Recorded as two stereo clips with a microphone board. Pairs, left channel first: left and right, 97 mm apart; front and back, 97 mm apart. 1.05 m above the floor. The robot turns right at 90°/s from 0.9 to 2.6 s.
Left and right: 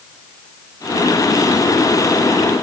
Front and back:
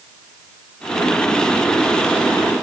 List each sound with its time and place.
Only background noise.